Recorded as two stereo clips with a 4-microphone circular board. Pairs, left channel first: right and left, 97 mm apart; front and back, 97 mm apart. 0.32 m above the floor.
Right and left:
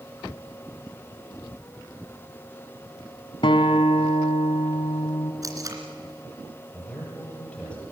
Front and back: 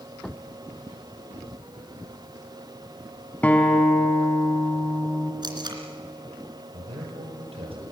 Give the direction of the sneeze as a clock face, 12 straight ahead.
No sneeze in this recording.